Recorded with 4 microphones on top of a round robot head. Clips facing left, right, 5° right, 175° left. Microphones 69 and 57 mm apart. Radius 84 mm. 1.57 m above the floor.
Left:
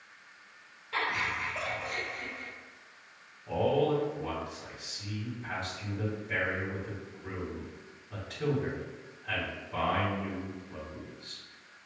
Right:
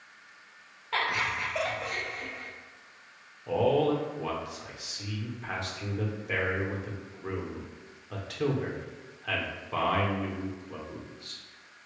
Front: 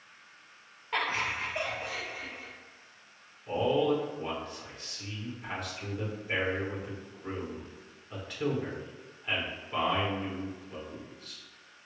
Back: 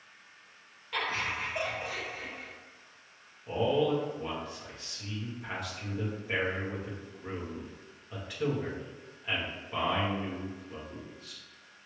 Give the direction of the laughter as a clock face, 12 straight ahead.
2 o'clock.